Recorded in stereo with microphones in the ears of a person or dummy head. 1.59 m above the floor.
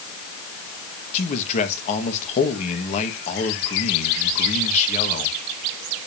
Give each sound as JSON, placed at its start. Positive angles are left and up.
{"t": 1.1, "sound": "a man speaking", "side_deg": 35, "distance_m": 1.8}